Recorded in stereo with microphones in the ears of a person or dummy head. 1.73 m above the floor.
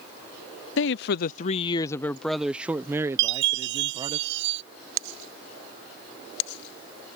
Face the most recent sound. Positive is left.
turn(degrees=-65)  # may be behind; listen again after turning